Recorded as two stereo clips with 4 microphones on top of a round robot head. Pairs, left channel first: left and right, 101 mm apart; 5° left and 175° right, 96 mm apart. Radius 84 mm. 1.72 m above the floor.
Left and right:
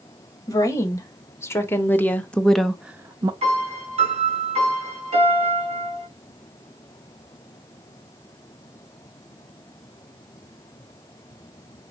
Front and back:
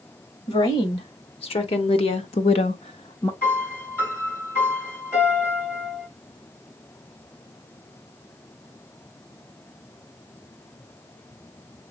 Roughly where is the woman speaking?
Ahead left.